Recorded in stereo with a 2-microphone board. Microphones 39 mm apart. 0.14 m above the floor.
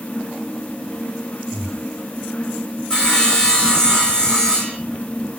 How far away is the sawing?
About 1.7 m.